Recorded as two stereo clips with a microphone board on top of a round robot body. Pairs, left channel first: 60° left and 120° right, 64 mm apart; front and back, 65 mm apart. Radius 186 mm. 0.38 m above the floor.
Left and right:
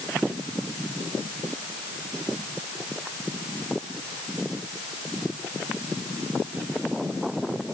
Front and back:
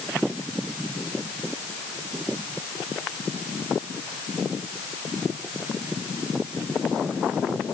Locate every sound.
Only background noise.